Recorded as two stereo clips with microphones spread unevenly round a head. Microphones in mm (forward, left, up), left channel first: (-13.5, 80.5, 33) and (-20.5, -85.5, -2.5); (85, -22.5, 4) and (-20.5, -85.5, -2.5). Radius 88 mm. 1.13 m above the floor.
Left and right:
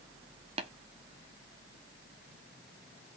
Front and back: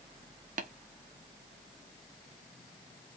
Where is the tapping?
150° right, 0.9 m.